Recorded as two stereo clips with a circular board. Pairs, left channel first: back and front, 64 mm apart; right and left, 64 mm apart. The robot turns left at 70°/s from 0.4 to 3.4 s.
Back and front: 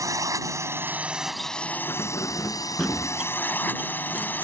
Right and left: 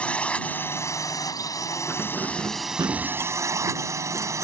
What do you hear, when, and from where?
0.0 s a drone: 20° right; by 4.5 s 120° left
1.9 s keys jangling: 165° left; by 4.5 s 60° left